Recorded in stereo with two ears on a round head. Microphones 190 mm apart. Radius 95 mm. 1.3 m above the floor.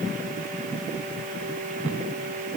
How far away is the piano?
I don't hear a piano.